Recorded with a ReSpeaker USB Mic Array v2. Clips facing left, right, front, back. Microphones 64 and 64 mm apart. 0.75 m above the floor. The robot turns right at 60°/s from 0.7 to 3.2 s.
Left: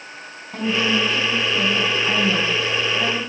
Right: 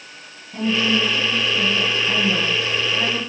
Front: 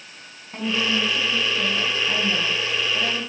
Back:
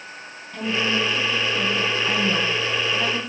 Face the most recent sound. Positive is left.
turn(degrees=-150)